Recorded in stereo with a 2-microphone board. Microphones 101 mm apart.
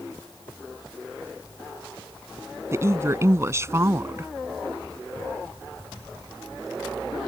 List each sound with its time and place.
2.7 s a woman speaking: 30° right (ahead or behind)